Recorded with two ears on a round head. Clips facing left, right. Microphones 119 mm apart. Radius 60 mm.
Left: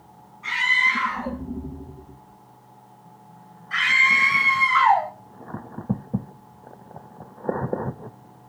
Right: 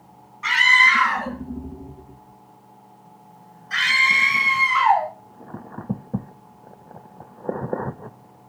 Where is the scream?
80° right, 4.5 m; by 5.1 s 5° right (ahead or behind), 2.5 m.